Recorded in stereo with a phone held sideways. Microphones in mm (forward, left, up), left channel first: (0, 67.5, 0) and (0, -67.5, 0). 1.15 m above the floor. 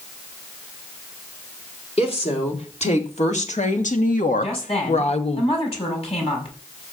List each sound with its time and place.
2.0 s a woman speaking: 50° left (ahead or behind), 3.5 m; by 5.4 s 45° left (ahead or behind), 1.4 m
4.4 s a woman speaking: 45° left (ahead or behind), 7 m